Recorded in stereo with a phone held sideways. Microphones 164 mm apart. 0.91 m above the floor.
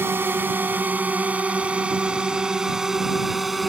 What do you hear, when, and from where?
0.0 s a drone: 15° right (ahead or behind); by 3.7 s centre (ahead or behind)